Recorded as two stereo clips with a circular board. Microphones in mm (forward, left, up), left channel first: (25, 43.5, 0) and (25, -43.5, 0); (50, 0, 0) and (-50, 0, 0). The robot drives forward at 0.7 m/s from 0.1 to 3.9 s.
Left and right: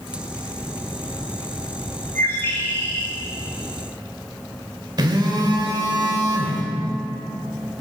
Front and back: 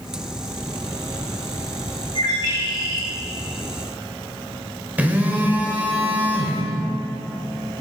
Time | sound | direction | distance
2.1 | a bird | 30° left | 2 m
5.0 | a phone buzzing | 110° right | 1.3 m